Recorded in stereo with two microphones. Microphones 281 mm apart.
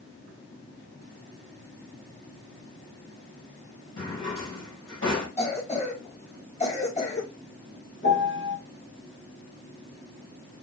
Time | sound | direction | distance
4.0 | a drawer | 50° left (ahead or behind) | 4 m
5.4 | a cough | 25° left (ahead or behind) | 3.5 m
8.0 | a piano | 45° left (ahead or behind) | 1.2 m